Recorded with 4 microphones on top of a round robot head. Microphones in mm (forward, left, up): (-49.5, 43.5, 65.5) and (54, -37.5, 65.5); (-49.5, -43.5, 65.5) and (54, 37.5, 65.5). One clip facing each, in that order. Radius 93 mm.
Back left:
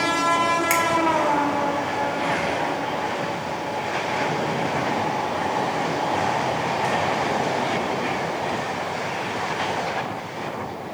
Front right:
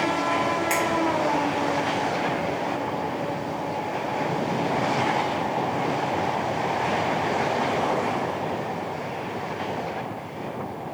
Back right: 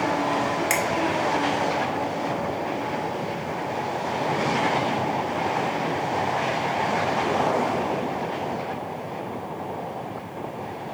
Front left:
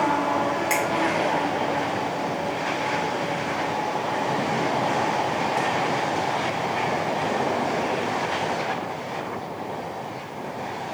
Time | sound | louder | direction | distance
0.7 | a finger snap | back left 2 dB, front left 1 dB | straight behind | 2 m